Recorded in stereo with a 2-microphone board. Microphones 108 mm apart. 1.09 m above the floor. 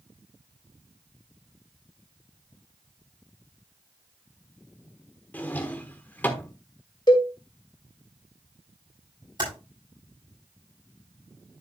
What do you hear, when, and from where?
5.3 s a drawer: 15° left (ahead or behind), 1.3 m
7.1 s a cowbell: 45° left (ahead or behind), 2.5 m
9.4 s typing on a keyboard: 45° right (ahead or behind), 6 m